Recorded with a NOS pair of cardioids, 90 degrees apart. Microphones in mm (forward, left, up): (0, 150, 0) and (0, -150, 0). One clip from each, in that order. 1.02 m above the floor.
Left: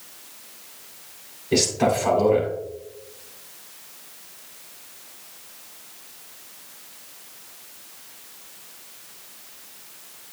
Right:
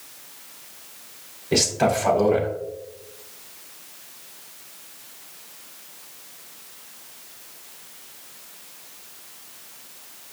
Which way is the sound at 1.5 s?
20° right.